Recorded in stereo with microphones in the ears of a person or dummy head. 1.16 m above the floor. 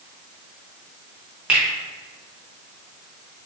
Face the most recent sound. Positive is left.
turn(degrees=-5)  # may be behind; listen again after turning